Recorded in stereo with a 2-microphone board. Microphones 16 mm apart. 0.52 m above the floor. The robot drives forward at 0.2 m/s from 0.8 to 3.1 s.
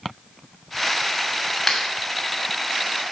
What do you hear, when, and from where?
1.7 s a clap: 10° left (ahead or behind), 2.5 m